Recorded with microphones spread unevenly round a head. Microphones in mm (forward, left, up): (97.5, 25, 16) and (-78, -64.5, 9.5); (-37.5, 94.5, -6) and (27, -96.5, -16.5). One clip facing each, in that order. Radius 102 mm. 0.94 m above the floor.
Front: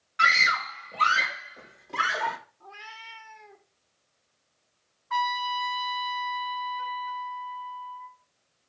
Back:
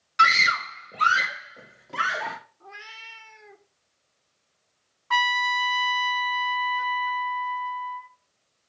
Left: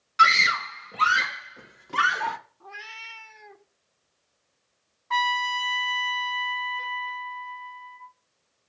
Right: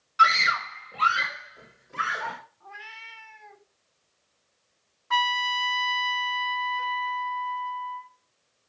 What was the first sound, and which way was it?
A scream, 170° left.